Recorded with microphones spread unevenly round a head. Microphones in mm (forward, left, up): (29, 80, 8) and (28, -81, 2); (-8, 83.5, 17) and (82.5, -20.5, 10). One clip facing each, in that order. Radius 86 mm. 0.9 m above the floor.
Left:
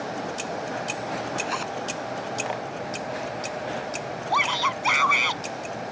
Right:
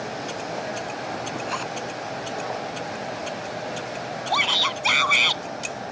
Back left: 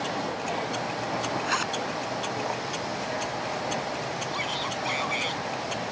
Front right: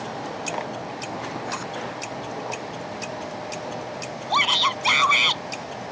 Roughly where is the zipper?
Behind.